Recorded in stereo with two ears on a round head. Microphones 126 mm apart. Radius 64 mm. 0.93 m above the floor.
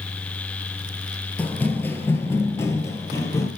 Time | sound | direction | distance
1.4 | running footsteps | 10° left (ahead or behind) | 1.0 m